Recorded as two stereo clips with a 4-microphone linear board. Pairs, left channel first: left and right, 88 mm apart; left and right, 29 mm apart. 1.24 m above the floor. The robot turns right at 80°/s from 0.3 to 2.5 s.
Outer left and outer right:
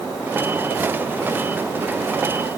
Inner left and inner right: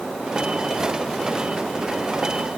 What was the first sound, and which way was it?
Only background noise.